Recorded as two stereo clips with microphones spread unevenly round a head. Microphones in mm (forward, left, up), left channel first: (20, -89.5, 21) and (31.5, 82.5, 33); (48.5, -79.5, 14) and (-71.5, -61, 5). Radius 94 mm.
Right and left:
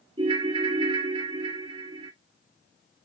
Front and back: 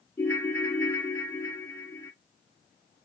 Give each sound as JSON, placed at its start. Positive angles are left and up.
{"t": 0.2, "sound": "a ringtone", "azimuth_deg": 50, "distance_m": 0.5}